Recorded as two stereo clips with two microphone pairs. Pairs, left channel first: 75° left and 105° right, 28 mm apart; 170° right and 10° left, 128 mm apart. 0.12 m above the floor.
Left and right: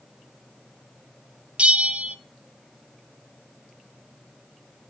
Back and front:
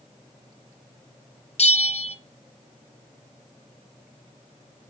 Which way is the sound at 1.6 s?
145° right.